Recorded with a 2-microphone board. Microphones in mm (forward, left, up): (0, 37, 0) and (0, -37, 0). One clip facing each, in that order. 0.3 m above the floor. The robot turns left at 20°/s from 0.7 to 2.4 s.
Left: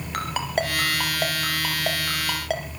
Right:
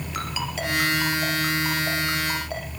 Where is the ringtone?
50° left (ahead or behind), 3 m; by 2.6 s 80° left, 3 m.